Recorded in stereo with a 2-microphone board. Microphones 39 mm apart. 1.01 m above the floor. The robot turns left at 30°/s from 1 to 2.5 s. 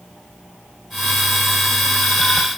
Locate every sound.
Only background noise.